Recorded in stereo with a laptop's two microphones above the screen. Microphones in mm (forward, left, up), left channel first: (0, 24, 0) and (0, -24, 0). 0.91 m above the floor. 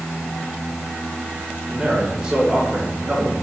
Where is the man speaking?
10° right (ahead or behind), 4 m; by 3.4 s 25° right (ahead or behind), 3.5 m.